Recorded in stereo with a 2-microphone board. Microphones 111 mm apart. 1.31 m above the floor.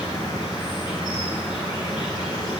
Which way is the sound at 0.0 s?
45° left (ahead or behind).